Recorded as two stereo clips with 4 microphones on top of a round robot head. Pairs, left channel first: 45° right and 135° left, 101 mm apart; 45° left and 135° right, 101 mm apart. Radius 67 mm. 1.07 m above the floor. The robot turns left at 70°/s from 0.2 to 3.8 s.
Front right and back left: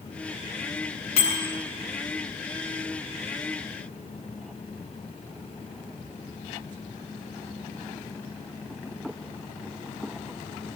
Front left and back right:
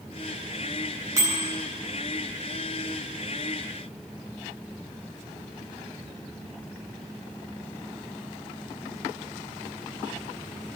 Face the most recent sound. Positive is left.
turn(degrees=105)